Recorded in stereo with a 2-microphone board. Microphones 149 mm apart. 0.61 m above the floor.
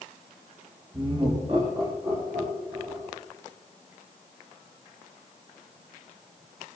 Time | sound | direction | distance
0.9 | laughter | 35° right (ahead or behind) | 2 m